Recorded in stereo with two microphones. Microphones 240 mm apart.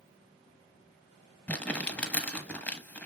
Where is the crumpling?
5° left (ahead or behind), 1.0 m.